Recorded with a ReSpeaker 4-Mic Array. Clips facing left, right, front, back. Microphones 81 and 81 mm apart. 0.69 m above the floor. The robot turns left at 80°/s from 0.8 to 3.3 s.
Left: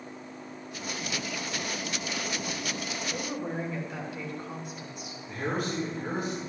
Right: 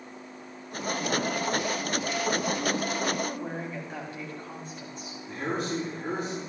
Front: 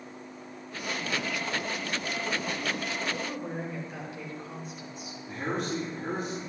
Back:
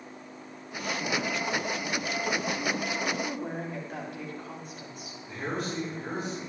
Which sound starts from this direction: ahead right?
A man speaking, at 5.3 s.